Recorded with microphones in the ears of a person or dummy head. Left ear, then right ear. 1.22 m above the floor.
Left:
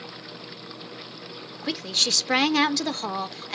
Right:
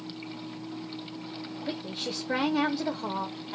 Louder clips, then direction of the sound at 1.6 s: Left 12 dB; 65° left (ahead or behind).